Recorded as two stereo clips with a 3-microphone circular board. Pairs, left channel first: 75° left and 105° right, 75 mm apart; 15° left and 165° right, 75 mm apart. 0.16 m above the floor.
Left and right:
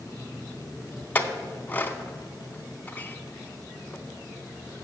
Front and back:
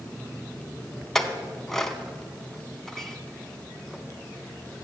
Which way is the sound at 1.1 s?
90° left.